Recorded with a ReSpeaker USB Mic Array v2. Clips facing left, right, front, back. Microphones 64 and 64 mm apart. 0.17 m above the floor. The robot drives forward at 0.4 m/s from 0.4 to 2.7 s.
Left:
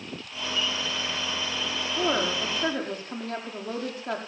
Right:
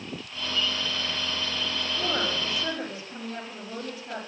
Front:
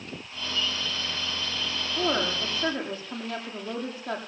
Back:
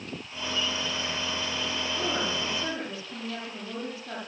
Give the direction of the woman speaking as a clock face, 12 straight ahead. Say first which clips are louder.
Left 4 dB, front 5 dB; 10 o'clock.